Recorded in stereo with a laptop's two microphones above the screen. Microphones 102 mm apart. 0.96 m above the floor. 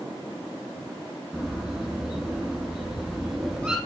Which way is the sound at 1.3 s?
Centre (ahead or behind).